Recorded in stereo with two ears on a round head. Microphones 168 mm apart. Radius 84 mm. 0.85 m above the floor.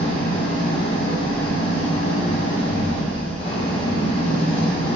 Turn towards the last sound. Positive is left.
turn(degrees=30)  # may be behind; listen again after turning